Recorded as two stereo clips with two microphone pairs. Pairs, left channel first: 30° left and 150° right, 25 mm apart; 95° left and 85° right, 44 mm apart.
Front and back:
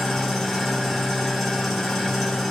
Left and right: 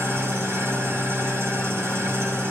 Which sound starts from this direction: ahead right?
An engine running, at 0.0 s.